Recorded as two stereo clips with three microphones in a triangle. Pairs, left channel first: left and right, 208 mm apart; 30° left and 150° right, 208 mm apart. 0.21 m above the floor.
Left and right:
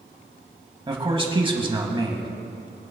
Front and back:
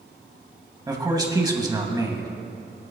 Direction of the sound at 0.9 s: 105° right.